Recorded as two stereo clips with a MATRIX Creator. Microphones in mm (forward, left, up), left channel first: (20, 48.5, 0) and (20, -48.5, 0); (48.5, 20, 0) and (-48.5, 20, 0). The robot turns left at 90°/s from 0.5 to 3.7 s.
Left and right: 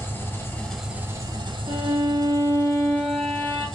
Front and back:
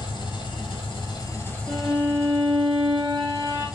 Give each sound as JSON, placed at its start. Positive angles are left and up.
{"t": 0.0, "sound": "an engine running", "azimuth_deg": 25, "distance_m": 0.9}
{"t": 1.7, "sound": "a violin", "azimuth_deg": -55, "distance_m": 1.0}